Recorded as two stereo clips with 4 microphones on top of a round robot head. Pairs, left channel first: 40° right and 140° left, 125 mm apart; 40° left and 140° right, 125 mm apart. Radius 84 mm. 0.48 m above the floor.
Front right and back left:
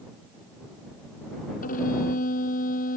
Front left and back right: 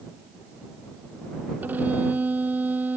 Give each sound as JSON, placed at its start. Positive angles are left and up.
{"t": 1.6, "sound": "a violin", "azimuth_deg": -60}